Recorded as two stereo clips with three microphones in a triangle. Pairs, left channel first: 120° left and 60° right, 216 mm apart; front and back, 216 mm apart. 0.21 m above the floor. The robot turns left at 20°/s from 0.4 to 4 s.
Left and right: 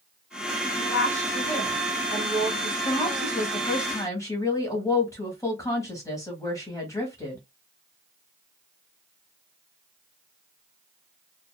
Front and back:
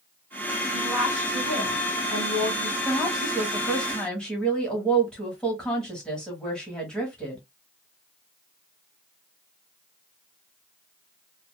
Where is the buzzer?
No buzzer in this recording.